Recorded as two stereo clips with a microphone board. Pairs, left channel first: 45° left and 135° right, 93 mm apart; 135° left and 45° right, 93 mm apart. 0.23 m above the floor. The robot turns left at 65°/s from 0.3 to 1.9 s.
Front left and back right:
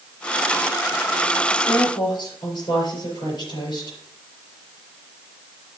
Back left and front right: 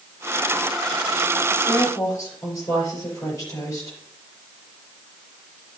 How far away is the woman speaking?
About 5 m.